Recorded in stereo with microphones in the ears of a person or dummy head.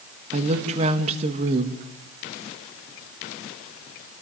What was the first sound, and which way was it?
A woman speaking, 35° right (ahead or behind).